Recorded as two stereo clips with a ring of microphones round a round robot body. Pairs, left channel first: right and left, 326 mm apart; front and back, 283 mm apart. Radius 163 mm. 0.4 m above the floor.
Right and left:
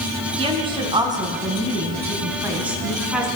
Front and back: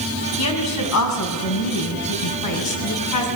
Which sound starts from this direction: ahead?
A woman speaking, at 0.4 s.